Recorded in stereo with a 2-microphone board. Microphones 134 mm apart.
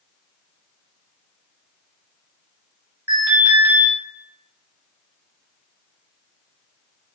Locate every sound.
3.1 s an alarm: 20° right (ahead or behind), 1.1 m